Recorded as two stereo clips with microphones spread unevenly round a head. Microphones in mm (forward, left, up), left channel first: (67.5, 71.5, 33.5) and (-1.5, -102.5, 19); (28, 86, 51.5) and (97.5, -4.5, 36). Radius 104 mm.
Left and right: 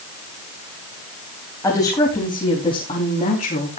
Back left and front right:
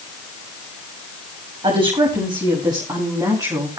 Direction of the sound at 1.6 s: 5° right.